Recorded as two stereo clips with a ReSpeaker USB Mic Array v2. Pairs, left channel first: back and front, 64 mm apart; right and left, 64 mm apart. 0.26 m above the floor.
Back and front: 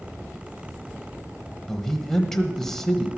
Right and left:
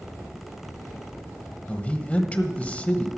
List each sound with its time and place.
1.7 s a man speaking: 105° right, 0.9 m